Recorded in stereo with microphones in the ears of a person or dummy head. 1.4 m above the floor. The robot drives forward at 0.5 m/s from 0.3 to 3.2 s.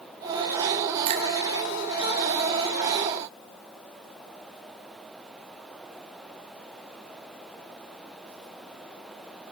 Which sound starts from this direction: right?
A finger snap, at 1.1 s.